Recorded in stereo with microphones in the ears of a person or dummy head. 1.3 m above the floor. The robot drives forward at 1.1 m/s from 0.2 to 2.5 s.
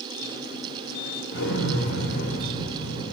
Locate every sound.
1.3 s an explosion: 70° left (ahead or behind), 2 m; by 3.1 s 45° left (ahead or behind), 2.5 m